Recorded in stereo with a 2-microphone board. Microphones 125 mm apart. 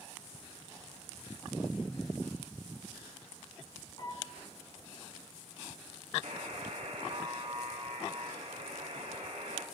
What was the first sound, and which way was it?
A piano, 35° left (ahead or behind).